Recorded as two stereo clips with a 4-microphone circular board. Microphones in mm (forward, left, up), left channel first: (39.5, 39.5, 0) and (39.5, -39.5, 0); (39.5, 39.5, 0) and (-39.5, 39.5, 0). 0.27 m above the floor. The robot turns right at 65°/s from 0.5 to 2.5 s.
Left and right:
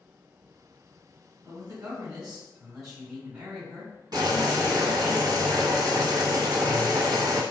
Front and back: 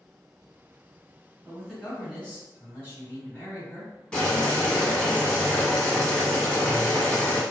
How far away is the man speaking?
About 1.8 m.